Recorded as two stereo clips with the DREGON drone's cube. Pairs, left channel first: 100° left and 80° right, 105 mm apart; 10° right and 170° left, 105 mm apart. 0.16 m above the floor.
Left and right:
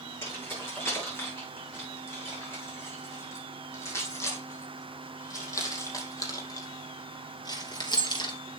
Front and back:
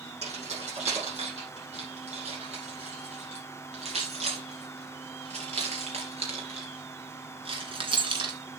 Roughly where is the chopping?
No chopping in this recording.